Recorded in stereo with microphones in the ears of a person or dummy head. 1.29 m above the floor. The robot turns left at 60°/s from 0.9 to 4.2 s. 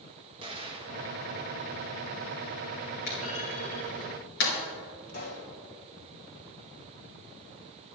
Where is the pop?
50° left (ahead or behind), 2.5 m.